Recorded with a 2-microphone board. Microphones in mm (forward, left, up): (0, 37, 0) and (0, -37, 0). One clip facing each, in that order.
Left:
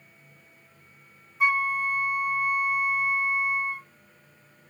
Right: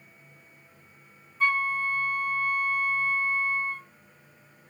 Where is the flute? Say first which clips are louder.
Left 2 dB; 15° left (ahead or behind), 0.8 m.